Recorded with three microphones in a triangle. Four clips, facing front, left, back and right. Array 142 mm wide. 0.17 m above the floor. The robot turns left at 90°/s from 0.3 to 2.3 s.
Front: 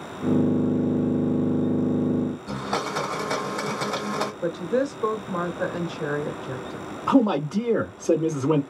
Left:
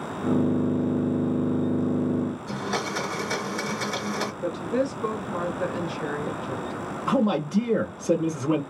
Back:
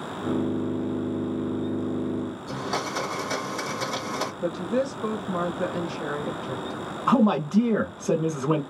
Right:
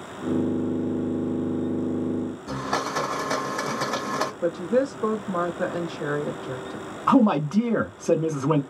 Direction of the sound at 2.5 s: 55° right.